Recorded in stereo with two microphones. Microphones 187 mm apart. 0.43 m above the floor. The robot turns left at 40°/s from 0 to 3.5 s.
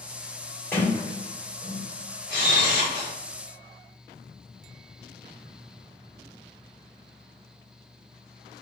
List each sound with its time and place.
0.7 s a sliding door: 15° left (ahead or behind), 1.7 m; by 1.8 s 20° right (ahead or behind), 1.7 m
2.3 s a camera shutter: 95° right, 1.9 m; by 3.1 s 125° right, 1.9 m